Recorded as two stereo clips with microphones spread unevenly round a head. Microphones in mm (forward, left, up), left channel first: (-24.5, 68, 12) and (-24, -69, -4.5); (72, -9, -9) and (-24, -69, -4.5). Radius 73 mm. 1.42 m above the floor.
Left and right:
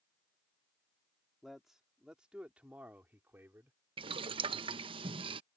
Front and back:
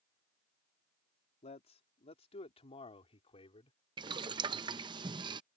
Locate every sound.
1.4 s a man speaking: straight ahead; by 3.8 s 10° right
4.0 s boiling: 135° right